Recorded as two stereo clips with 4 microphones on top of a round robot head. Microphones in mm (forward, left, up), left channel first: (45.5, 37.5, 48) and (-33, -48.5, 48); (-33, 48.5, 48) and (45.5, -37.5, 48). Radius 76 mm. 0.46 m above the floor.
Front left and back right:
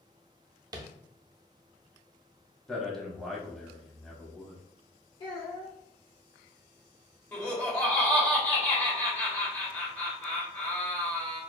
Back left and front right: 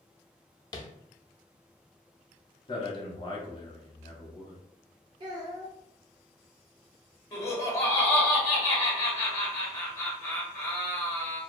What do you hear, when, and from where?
0.7 s tapping: straight behind, 0.5 m
2.7 s a man speaking: 135° left, 0.9 m
5.2 s a child speaking: straight ahead, 0.6 m
7.3 s laughter: 95° left, 1.1 m